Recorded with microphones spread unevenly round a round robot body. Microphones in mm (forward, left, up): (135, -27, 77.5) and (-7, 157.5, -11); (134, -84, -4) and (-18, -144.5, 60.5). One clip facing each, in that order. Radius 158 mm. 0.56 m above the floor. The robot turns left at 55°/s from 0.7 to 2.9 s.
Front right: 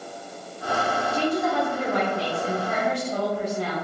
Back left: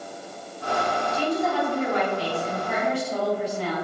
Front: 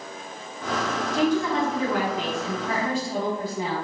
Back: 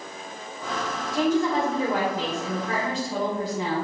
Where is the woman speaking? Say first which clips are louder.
Front right 1 dB, back 1 dB; 60° right, 1.3 m; by 3.8 s 155° right, 1.3 m.